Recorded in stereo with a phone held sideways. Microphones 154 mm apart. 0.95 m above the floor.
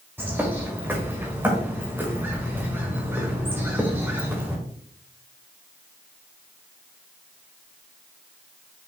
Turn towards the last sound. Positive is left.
turn(degrees=-10)  # may be behind; listen again after turning